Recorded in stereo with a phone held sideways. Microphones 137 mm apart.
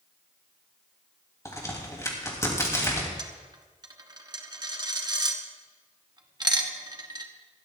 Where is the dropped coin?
30° right (ahead or behind), 1.2 m.